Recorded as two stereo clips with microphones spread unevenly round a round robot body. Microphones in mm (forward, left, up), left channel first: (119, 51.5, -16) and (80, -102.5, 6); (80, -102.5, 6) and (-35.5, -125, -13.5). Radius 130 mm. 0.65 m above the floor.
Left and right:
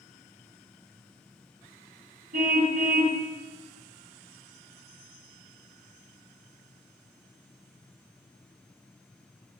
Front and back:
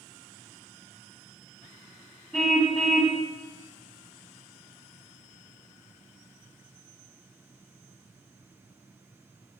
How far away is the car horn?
About 3 m.